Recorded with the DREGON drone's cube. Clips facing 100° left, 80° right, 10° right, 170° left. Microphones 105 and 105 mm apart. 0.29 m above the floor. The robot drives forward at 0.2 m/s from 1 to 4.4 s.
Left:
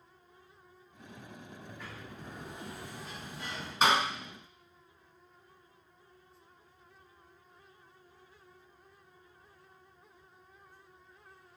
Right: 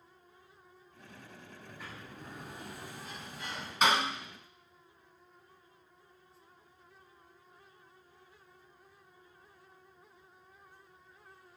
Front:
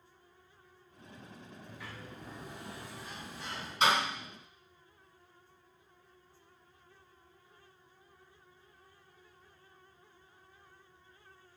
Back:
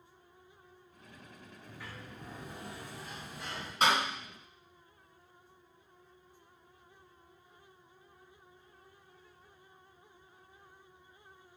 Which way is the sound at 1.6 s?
155° right.